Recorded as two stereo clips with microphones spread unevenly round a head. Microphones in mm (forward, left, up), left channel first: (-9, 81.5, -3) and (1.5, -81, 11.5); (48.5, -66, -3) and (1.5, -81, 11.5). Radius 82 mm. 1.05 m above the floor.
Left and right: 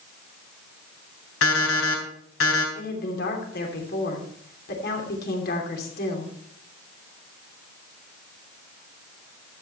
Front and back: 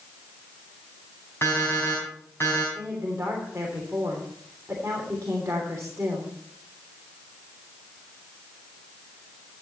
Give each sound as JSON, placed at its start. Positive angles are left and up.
{"t": 1.4, "sound": "an alarm clock", "azimuth_deg": 95, "distance_m": 4.0}
{"t": 2.8, "sound": "a woman speaking", "azimuth_deg": 120, "distance_m": 3.0}